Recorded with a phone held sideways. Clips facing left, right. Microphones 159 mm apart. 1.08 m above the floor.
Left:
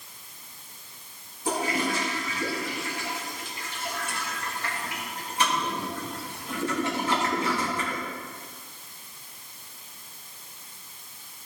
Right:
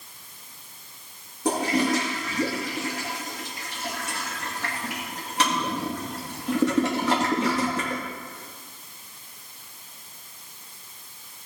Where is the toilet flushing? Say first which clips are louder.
Right 5 dB; 70° right (ahead or behind), 2 m.